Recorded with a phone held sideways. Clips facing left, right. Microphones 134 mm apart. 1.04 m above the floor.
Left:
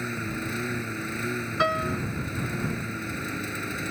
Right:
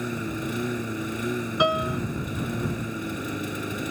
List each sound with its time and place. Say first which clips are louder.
0.0 s a lawn mower: right 3 dB; 15° right (ahead or behind)
1.6 s a piano: right 3 dB; 15° right (ahead or behind)